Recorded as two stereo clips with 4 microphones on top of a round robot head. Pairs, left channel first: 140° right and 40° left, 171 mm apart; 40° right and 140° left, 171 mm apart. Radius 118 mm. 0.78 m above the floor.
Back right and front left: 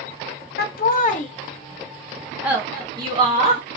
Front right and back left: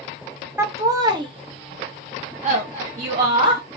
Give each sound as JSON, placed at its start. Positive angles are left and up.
{"t": 0.6, "sound": "laughter", "azimuth_deg": -145, "distance_m": 1.2}